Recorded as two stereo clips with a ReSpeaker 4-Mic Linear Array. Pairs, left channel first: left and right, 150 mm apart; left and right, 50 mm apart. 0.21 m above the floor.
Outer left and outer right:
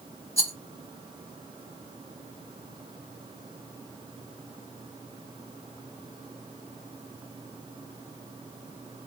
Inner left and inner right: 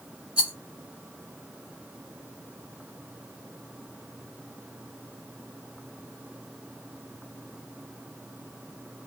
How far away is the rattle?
About 1.2 m.